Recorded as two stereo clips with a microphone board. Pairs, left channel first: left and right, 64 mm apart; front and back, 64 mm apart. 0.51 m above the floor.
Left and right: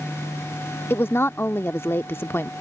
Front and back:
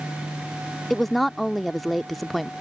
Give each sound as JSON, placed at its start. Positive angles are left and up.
{"t": 0.9, "sound": "a woman speaking", "azimuth_deg": 90}